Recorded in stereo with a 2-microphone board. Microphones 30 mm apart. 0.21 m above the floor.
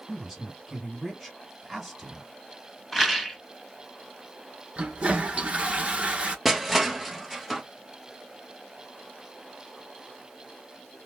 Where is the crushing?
5° right (ahead or behind), 0.7 m.